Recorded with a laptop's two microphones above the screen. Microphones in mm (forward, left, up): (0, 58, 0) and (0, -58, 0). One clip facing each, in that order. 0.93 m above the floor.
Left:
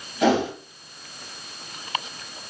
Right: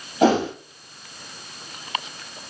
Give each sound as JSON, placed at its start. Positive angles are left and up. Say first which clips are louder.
{"t": 0.2, "sound": "a whoosh", "louder": "right 2 dB", "side_deg": -35, "distance_m": 2.0}